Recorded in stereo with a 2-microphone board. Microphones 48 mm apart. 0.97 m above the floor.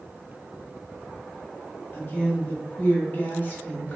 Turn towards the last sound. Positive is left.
turn(degrees=35)  # may be behind; listen again after turning